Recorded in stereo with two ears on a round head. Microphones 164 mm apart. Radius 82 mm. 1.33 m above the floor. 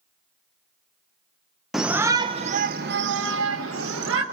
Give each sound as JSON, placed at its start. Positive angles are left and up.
{"t": 1.7, "sound": "a shout", "side_deg": 0, "distance_m": 0.8}